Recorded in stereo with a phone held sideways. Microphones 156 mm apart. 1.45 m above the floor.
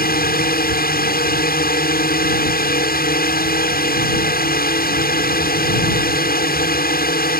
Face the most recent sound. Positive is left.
turn(degrees=75)  # may be behind; listen again after turning